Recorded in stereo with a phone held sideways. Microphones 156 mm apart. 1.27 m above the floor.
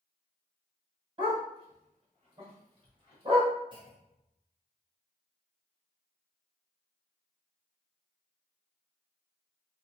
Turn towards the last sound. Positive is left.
turn(degrees=-30)  # may be behind; listen again after turning